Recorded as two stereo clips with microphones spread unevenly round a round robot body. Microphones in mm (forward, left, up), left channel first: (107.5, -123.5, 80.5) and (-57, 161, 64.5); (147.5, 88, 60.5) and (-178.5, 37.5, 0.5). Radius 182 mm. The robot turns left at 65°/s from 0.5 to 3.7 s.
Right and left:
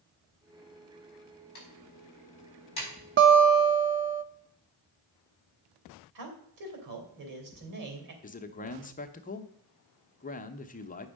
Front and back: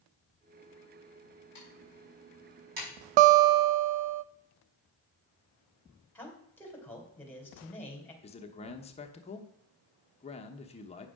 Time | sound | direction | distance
1.6 | typing on a keyboard | 55° right | 5.5 m
3.2 | a guitar | straight behind | 0.5 m
6.2 | a man speaking | 95° left | 3 m
8.2 | a man speaking | 60° right | 0.9 m